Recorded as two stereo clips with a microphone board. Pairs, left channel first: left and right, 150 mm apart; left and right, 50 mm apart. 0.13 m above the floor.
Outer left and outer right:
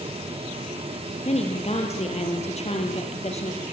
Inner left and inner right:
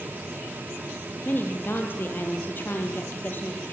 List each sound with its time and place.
1.2 s a woman speaking: 45° left (ahead or behind), 3 m